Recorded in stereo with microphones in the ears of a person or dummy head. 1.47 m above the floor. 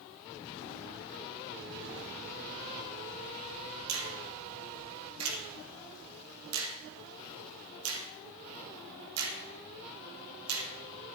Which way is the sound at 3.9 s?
85° right.